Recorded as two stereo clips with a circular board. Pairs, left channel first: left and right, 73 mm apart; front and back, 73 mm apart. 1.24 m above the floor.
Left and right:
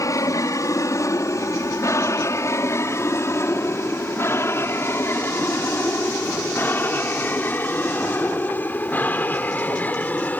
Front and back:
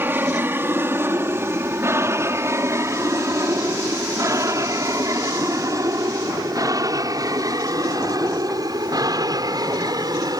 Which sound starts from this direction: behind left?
An aircraft, at 0.0 s.